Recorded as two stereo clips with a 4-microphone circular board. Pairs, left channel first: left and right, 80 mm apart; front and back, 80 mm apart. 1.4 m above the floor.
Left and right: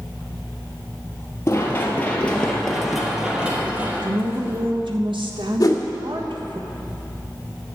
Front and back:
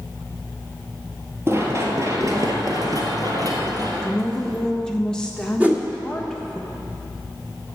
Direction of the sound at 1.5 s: 135° left.